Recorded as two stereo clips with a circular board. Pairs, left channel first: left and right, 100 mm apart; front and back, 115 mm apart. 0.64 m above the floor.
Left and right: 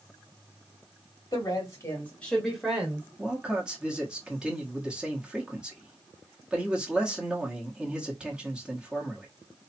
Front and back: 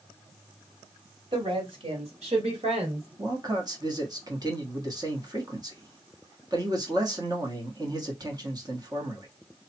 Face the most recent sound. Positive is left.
turn(degrees=-165)